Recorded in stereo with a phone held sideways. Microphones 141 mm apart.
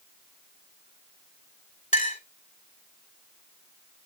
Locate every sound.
1.9 s a clink: 65° left (ahead or behind), 2.5 m